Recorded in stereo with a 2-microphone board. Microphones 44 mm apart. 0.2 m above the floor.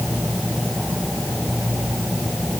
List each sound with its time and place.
Only background noise.